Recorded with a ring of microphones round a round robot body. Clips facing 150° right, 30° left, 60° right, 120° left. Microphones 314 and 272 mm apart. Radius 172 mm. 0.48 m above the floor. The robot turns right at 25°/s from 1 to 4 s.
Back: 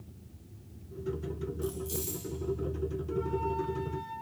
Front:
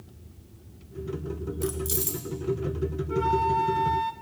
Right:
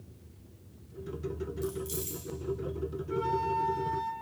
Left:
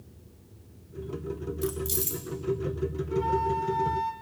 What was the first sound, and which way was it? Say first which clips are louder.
Keys jangling: front 7 dB, left 6 dB; 75° left.